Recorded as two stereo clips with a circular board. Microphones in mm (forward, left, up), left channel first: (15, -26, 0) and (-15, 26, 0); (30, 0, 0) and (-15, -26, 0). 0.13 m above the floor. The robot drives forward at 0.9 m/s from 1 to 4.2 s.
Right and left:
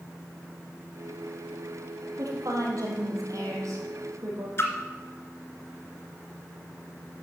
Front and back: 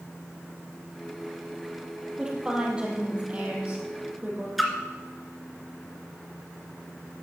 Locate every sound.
2.2 s a woman speaking: 135° left, 4 m; by 4.5 s 150° left, 5 m
4.6 s a splash: 60° right, 2 m